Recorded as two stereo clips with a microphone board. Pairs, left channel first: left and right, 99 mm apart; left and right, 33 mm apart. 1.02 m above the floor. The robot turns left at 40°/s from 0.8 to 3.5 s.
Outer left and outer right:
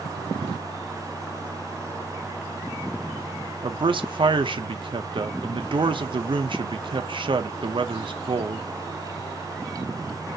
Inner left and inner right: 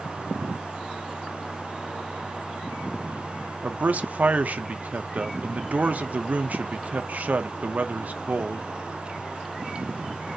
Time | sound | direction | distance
3.6 | a man speaking | 55° right (ahead or behind) | 0.6 m